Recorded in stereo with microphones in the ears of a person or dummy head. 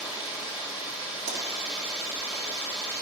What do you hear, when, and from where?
0.0 s running water: centre (ahead or behind), 1.9 m
1.3 s a pop: 60° right (ahead or behind), 2 m